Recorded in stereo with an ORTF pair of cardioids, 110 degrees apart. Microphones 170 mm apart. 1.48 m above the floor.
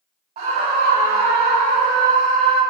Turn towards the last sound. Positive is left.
turn(degrees=-80)